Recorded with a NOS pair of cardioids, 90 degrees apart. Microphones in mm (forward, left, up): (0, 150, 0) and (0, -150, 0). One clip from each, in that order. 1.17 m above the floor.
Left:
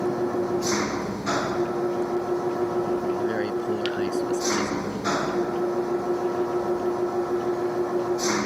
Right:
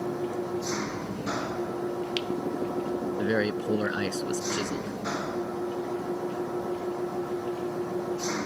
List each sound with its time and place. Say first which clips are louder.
0.0 s an engine running: left 6 dB; 50° left
3.2 s a man speaking: left 1 dB; 35° right